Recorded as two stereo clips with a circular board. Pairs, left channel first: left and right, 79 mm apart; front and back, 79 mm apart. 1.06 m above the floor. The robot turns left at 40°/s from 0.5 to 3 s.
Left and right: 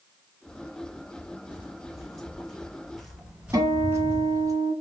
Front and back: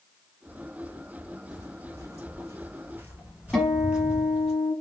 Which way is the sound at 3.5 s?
85° right.